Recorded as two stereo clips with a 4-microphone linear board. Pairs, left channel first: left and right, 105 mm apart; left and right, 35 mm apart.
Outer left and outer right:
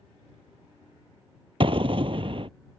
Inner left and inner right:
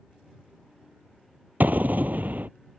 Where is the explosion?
60° right (ahead or behind).